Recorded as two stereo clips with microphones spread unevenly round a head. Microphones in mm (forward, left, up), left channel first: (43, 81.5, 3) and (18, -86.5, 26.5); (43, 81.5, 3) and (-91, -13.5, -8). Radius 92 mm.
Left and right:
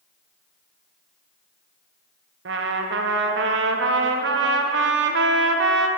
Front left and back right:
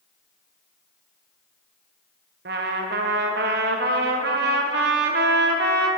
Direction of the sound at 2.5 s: 120° right.